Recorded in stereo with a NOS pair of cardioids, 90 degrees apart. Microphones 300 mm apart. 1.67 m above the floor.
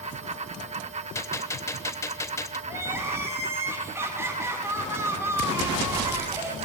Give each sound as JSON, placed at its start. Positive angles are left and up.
{"t": 0.0, "sound": "a fan", "azimuth_deg": -20, "distance_m": 0.8}
{"t": 1.1, "sound": "a gunshot", "azimuth_deg": 10, "distance_m": 1.0}
{"t": 2.7, "sound": "crying", "azimuth_deg": -10, "distance_m": 6.0}